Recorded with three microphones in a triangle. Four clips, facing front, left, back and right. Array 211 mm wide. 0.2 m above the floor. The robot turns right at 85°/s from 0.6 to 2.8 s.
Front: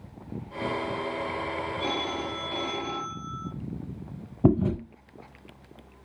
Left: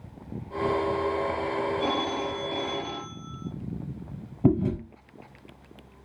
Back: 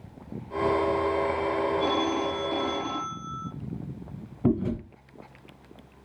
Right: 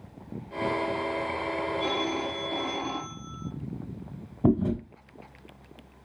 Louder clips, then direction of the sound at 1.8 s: Left 1 dB, back 5 dB; 140° left.